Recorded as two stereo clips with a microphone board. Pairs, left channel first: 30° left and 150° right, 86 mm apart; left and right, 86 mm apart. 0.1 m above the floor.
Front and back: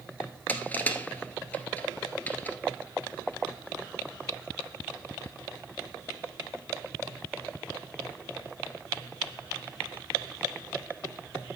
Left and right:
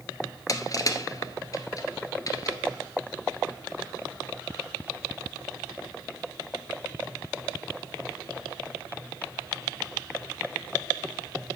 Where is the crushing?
90° left, 1.4 m.